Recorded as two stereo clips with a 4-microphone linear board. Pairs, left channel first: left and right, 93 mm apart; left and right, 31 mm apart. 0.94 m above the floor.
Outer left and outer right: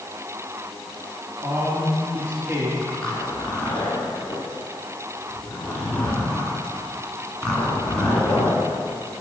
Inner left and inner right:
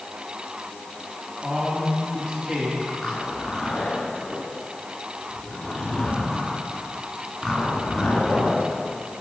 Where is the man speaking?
25° right (ahead or behind), 1.9 m.